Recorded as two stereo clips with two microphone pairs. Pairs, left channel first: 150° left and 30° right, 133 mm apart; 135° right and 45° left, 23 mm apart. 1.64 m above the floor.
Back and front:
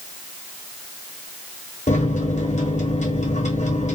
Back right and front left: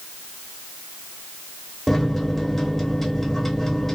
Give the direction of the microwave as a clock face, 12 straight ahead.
7 o'clock.